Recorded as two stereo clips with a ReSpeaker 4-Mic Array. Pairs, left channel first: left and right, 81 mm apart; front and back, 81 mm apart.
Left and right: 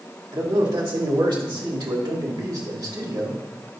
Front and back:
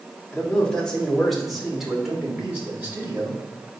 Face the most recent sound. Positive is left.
turn(degrees=-115)